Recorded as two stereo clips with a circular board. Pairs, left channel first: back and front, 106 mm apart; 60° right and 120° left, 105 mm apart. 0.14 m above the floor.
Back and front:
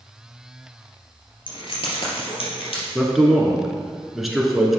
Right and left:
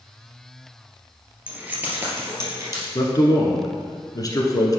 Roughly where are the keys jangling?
Behind.